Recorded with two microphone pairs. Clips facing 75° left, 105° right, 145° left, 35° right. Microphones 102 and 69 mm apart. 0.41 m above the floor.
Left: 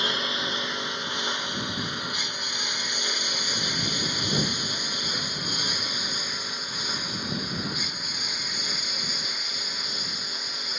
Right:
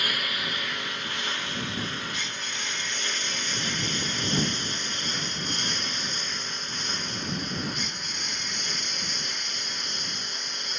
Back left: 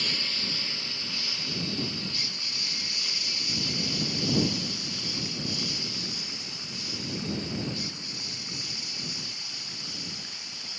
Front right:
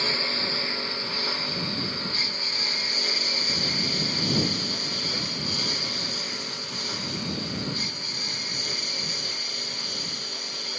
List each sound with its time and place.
0.0 s a lawn mower: 10° left; by 10.8 s 5° right